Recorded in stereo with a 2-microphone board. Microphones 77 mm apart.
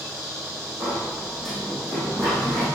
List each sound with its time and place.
0.8 s a sliding door: 5° left (ahead or behind), 6.5 m